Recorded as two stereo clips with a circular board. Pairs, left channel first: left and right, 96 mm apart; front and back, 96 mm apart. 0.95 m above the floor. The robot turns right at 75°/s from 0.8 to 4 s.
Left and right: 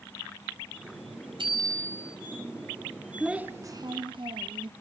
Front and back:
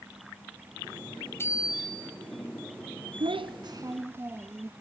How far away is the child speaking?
About 0.8 m.